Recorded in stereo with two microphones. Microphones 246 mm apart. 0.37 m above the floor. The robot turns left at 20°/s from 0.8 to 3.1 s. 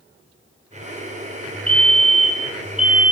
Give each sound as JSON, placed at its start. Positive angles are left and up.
{"t": 1.7, "sound": "a fire alarm", "side_deg": 5, "distance_m": 2.0}